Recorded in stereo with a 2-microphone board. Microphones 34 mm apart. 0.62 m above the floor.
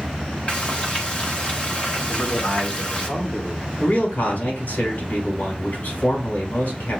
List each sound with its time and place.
0.5 s frying: 40° left (ahead or behind), 1.3 m
2.1 s a man speaking: 60° left (ahead or behind), 2.5 m
3.8 s a man speaking: 80° left, 4 m